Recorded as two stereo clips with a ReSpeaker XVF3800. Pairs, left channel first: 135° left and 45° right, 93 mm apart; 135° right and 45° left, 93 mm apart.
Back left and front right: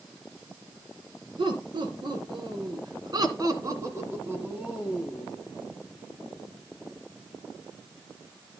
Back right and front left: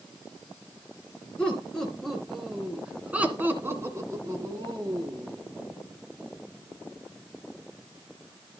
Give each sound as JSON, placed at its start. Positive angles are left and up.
{"t": 1.4, "sound": "laughter", "azimuth_deg": -55, "distance_m": 3.0}